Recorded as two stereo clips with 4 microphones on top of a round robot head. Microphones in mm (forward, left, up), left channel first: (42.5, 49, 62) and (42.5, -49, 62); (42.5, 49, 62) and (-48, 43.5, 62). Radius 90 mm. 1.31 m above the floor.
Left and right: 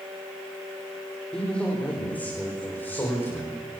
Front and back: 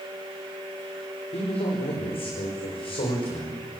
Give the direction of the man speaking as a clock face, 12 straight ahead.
12 o'clock.